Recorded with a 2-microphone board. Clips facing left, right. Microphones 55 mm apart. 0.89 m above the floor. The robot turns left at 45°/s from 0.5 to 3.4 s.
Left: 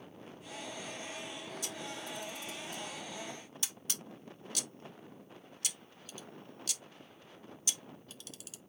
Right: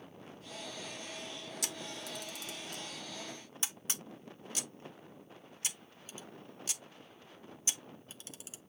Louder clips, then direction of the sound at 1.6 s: Even; 70° right (ahead or behind).